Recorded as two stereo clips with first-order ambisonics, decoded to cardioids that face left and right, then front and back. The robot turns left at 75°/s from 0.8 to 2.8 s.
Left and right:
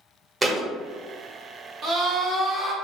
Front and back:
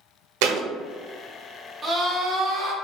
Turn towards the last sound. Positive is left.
turn(degrees=170)